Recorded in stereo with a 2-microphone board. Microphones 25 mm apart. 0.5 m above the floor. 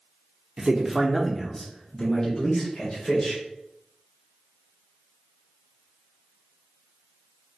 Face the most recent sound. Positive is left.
turn(degrees=40)  # may be behind; listen again after turning